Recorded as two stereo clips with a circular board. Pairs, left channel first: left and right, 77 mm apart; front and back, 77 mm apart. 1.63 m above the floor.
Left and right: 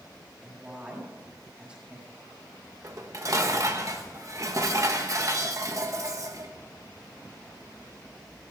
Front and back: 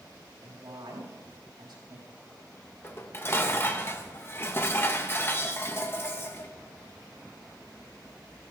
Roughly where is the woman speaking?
Behind.